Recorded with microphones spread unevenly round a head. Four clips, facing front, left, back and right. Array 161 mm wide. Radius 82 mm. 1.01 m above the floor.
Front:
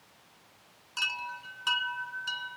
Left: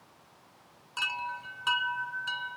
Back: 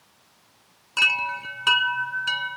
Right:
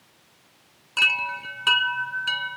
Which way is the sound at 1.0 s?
135° right.